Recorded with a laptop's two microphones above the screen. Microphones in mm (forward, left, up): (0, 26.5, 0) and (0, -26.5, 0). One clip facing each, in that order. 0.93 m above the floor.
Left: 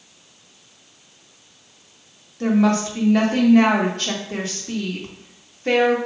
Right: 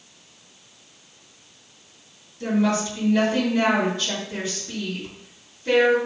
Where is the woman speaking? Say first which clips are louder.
Left 4 dB; 60° left (ahead or behind), 1.6 m.